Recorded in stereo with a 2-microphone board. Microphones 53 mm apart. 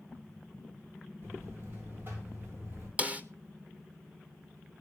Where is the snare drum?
25° right (ahead or behind), 1.0 m.